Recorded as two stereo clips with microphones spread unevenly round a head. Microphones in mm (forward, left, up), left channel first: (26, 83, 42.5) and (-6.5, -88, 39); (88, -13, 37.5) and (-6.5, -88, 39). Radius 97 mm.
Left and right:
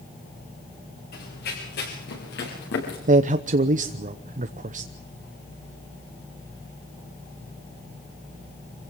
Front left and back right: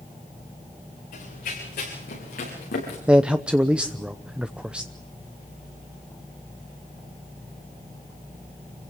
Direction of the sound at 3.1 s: 60° right.